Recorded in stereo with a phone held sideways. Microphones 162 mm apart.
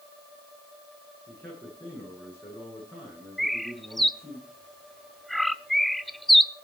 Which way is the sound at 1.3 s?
15° left (ahead or behind).